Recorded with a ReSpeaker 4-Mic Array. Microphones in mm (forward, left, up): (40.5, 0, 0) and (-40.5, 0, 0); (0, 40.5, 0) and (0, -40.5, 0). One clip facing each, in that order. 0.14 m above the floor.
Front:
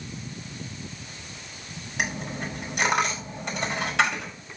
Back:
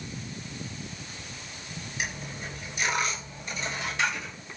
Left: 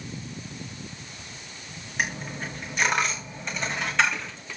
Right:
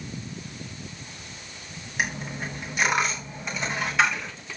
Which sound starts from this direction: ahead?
A dropped coin, at 2.0 s.